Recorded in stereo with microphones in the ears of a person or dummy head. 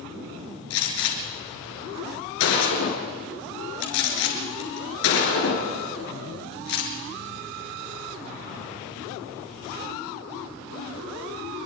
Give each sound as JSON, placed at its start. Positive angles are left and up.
{"t": 0.7, "sound": "a gunshot", "side_deg": 80, "distance_m": 6.0}